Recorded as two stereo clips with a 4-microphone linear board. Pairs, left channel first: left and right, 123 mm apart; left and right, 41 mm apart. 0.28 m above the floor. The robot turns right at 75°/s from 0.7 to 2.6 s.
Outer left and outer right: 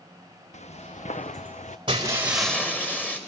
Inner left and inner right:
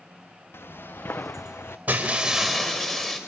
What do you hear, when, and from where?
0.5 s footsteps: 75° left (ahead or behind), 1.5 m
1.9 s breaking glass: 40° right, 4.5 m; by 3.2 s 10° left, 4.5 m